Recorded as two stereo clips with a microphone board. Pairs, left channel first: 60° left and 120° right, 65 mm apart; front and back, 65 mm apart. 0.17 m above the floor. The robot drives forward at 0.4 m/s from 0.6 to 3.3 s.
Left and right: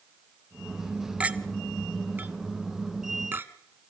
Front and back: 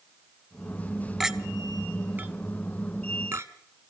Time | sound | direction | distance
1.2 | a clink | 110° right | 1.0 m